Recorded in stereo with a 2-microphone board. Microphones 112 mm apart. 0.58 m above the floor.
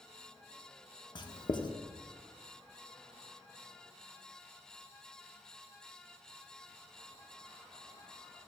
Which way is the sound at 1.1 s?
45° left (ahead or behind).